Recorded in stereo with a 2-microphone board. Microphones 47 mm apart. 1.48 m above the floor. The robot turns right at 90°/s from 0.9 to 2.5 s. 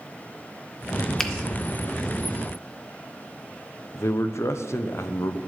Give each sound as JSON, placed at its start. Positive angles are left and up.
{"t": 1.2, "sound": "a finger snap", "side_deg": 15, "distance_m": 1.0}
{"t": 3.9, "sound": "a man speaking", "side_deg": 70, "distance_m": 0.8}